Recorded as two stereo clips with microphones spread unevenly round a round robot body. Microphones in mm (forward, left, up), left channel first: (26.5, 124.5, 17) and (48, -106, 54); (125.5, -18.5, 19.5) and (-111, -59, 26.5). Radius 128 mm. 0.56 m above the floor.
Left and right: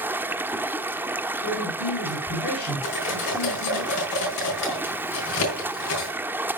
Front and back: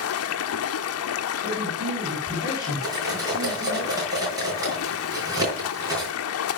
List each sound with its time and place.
0.0 s running water: straight ahead, 1.0 m
1.4 s a man speaking: 85° left, 4.5 m
2.8 s cutlery clinking: 115° left, 5 m